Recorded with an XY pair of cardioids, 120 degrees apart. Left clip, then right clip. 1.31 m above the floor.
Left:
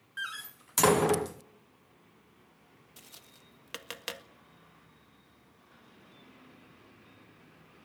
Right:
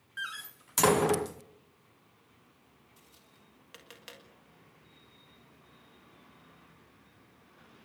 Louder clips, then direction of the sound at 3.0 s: Left 9 dB; 60° left.